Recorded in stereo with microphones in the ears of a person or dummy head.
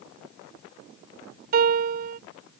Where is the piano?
55° right (ahead or behind).